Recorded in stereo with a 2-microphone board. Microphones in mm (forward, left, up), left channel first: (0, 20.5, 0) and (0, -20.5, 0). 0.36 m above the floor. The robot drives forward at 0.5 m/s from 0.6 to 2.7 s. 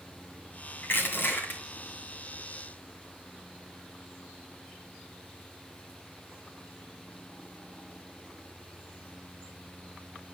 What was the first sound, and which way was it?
Crushing, 55° left (ahead or behind).